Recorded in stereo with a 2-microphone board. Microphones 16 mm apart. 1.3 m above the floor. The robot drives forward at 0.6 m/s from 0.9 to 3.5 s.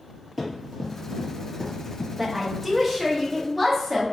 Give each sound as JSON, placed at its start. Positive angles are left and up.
{"t": 0.4, "sound": "running footsteps", "side_deg": -5, "distance_m": 1.5}
{"t": 2.2, "sound": "a woman speaking", "side_deg": -5, "distance_m": 0.5}